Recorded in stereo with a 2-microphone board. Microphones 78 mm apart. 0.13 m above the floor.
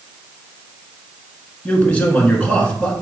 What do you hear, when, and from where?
1.6 s a man speaking: 20° left (ahead or behind), 1.2 m